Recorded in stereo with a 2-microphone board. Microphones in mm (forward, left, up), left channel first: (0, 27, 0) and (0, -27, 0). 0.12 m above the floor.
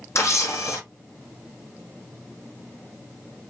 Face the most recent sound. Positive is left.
turn(degrees=55)  # may be behind; listen again after turning